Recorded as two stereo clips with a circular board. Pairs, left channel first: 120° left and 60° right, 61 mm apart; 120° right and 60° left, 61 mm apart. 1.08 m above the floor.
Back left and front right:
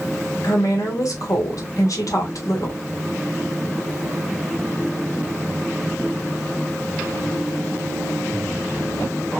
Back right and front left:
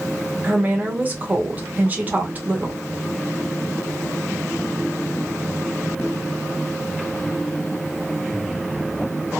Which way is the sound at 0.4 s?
120° left.